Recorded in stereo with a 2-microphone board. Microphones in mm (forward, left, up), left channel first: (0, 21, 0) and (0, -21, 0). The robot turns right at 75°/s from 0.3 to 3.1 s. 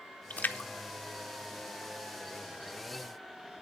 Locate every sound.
0.3 s a splash: 40° left (ahead or behind), 0.8 m; by 2.2 s 15° right (ahead or behind), 0.8 m